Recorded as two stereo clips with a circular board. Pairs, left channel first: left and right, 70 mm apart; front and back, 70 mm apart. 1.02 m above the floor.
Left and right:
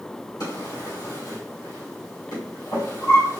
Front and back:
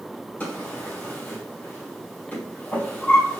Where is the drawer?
65° left, 3 m.